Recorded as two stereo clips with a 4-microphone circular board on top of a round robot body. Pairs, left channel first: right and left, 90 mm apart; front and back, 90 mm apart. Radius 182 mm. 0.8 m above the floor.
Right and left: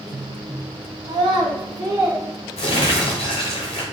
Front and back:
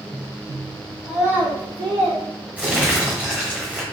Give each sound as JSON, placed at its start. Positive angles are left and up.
{"t": 1.0, "sound": "a child speaking", "azimuth_deg": 85, "distance_m": 1.1}
{"t": 2.6, "sound": "crumpling", "azimuth_deg": -105, "distance_m": 0.9}